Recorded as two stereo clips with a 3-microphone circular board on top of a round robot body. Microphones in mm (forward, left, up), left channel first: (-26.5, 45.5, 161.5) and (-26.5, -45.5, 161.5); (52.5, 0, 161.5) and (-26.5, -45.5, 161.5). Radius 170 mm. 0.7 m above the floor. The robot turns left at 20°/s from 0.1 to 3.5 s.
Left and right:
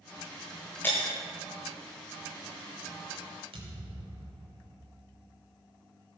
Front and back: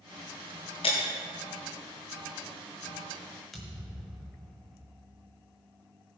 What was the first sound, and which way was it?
Breaking glass, 20° left.